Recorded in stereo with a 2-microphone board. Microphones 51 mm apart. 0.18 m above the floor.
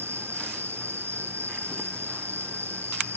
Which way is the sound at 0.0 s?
55° right (ahead or behind).